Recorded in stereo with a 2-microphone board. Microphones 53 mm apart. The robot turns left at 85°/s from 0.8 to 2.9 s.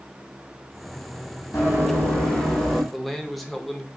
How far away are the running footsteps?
About 2 m.